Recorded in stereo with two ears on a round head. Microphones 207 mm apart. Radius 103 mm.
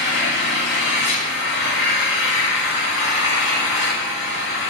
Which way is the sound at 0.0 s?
50° left (ahead or behind).